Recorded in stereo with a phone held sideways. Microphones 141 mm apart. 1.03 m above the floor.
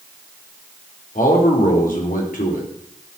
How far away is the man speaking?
About 3.5 m.